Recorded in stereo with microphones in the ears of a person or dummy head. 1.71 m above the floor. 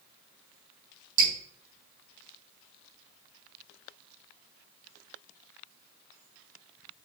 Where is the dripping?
55° right (ahead or behind), 3.5 m.